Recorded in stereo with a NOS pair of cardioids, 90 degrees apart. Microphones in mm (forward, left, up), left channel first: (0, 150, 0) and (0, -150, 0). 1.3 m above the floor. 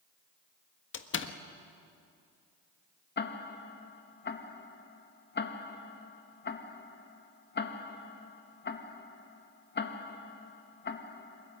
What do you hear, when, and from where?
0.9 s a door slam: 40° left, 1.5 m
3.2 s ticking: 35° left, 1.8 m